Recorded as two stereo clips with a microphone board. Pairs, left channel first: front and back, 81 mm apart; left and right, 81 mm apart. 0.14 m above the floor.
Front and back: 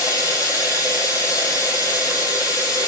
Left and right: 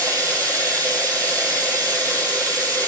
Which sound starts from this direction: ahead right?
Running water, at 0.0 s.